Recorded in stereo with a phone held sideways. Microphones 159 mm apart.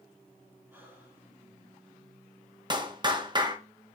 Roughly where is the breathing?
Centre.